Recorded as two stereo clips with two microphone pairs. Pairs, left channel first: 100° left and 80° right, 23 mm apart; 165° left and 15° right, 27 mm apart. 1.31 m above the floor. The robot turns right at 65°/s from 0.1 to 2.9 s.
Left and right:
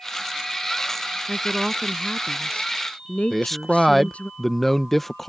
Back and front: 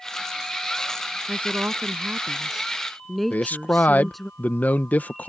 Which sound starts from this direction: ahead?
A woman speaking, at 1.3 s.